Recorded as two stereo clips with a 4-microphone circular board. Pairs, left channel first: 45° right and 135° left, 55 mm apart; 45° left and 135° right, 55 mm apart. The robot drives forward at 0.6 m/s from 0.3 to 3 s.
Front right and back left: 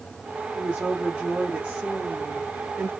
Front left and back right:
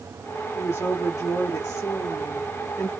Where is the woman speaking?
50° left, 2.5 m; by 2.9 s 85° left, 2.0 m.